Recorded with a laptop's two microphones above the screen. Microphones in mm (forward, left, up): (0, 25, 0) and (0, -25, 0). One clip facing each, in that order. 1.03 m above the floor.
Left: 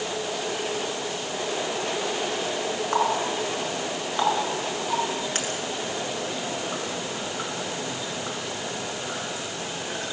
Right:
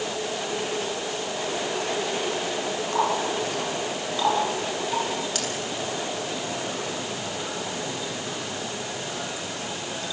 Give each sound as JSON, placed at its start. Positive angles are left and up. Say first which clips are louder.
{"t": 2.9, "sound": "a running tap", "louder": "even", "side_deg": 35, "distance_m": 8.0}